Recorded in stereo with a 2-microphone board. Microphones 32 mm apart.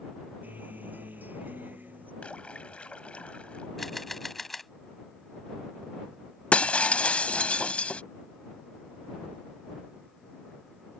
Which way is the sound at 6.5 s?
40° left (ahead or behind).